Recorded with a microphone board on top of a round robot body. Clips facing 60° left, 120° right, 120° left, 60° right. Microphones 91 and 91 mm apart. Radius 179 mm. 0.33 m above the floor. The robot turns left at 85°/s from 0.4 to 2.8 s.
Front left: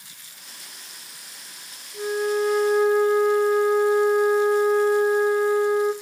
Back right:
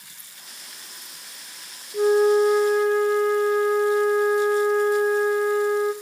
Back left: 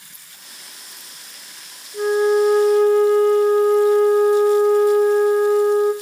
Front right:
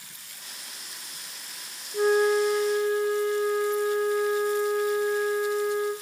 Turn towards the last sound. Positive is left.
turn(degrees=140)